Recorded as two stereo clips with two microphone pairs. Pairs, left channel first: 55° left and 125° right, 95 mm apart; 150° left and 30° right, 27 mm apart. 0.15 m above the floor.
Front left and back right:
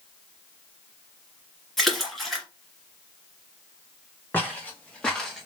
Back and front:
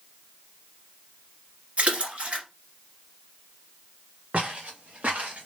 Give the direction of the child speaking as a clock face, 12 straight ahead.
I don't hear a child speaking.